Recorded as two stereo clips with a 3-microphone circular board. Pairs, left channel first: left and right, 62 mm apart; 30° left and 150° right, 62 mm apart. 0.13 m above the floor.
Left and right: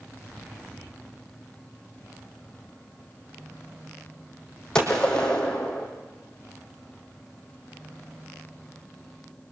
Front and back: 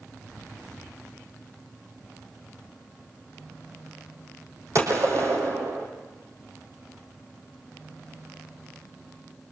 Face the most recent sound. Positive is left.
turn(degrees=170)